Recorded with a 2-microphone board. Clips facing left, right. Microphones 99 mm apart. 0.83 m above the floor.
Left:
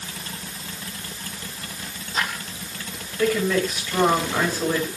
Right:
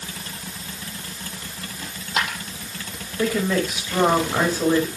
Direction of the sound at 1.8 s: 85° right.